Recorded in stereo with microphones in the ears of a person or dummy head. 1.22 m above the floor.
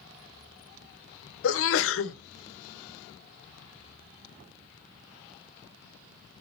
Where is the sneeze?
65° left (ahead or behind), 0.7 m.